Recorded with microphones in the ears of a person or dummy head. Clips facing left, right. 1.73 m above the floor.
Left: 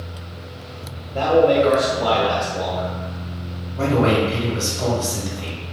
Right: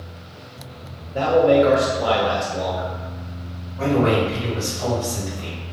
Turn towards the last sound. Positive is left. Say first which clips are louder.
# left 1 dB
turn(degrees=75)  # may be behind; listen again after turning